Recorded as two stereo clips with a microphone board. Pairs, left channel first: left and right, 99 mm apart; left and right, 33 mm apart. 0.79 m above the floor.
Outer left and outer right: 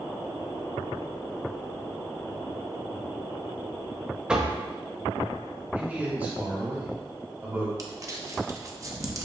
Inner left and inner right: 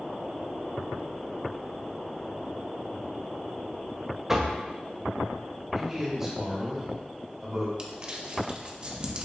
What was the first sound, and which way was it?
Knocking, 10° right (ahead or behind).